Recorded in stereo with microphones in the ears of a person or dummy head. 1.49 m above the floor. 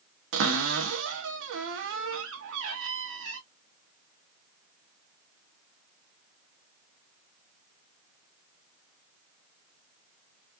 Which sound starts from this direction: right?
A cupboard door, at 0.3 s.